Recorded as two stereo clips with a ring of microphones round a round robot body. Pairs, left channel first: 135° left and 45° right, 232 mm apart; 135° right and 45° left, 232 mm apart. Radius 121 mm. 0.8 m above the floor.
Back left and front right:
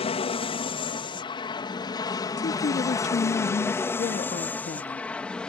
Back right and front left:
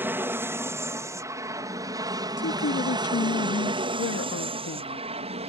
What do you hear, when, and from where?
0.0 s an aircraft: 115° left; by 5.5 s 55° left
2.4 s a woman speaking: 170° right